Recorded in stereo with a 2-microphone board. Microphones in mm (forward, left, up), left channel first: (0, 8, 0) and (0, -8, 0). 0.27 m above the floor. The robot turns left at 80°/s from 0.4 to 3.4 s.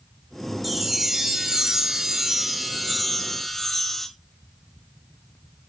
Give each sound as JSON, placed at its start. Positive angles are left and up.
{"t": 0.6, "sound": "a chime", "azimuth_deg": 0, "distance_m": 0.9}